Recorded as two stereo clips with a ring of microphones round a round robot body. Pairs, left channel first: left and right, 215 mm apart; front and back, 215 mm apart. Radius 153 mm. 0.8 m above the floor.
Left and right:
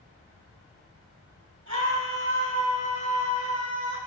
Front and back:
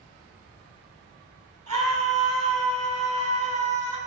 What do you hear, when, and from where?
1.7 s a scream: 140° right, 8 m